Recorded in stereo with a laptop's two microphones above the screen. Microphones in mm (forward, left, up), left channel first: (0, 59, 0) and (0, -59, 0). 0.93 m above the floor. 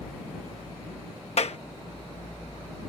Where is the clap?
60° left (ahead or behind).